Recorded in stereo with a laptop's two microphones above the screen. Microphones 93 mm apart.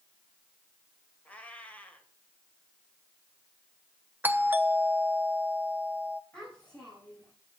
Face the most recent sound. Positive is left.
turn(degrees=10)  # may be behind; listen again after turning